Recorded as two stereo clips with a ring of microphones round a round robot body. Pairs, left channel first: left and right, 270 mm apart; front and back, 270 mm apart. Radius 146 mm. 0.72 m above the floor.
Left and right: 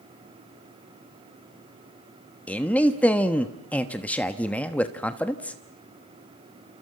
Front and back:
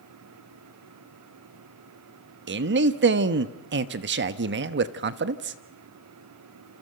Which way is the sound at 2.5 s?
170° left.